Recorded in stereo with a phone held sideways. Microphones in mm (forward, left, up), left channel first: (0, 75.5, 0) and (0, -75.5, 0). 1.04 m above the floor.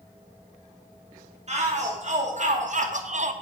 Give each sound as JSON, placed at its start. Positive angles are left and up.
{"t": 1.5, "sound": "a shout", "side_deg": -50, "distance_m": 1.6}